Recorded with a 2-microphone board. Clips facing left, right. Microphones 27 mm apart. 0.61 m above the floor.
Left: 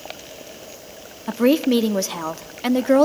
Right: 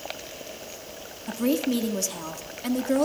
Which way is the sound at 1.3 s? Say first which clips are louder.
Left 8 dB; 35° left (ahead or behind).